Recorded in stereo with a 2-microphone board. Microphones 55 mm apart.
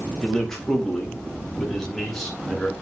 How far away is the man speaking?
About 3 m.